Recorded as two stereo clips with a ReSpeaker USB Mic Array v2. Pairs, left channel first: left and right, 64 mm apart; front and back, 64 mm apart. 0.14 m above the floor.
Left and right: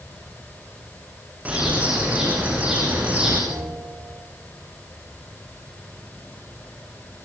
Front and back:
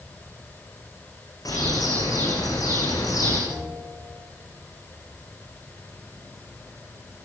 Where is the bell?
55° right, 7.5 m.